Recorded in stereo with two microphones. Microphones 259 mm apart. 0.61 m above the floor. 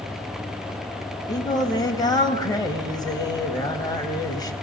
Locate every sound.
1.3 s singing: 15° left (ahead or behind), 3 m